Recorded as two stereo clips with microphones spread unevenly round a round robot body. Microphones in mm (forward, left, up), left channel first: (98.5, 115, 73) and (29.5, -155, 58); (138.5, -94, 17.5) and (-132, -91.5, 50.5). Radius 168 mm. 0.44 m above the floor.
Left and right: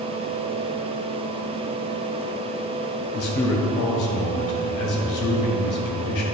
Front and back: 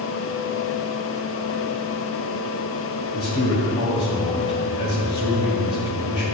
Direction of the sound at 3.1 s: 70° left.